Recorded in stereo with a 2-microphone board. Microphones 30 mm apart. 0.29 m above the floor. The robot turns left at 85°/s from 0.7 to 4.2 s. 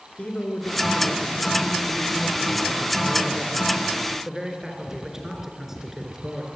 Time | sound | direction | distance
0.2 | a man speaking | 135° left | 3.5 m